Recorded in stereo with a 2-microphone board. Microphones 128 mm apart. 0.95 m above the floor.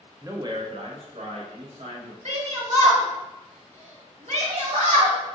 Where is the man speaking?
25° right (ahead or behind), 0.6 m; by 2.1 s 55° right (ahead or behind), 1.5 m.